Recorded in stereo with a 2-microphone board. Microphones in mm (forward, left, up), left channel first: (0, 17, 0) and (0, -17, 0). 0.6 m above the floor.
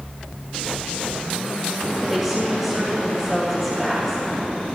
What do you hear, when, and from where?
2.0 s a woman speaking: 10° right (ahead or behind), 2.5 m